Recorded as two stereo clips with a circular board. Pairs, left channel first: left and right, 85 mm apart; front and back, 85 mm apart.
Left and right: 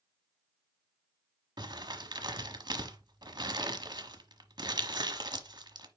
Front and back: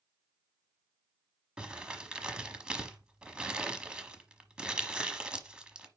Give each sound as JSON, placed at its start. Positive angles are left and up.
{"t": 1.6, "sound": "crumpling", "azimuth_deg": -100, "distance_m": 1.0}